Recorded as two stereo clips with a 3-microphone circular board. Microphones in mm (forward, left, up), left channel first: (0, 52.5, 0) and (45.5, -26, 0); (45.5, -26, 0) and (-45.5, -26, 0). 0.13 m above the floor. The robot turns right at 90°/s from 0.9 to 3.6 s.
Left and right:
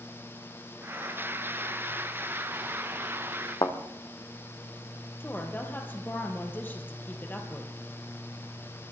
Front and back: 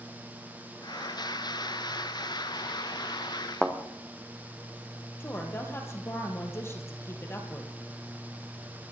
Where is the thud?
80° left, 2.0 m.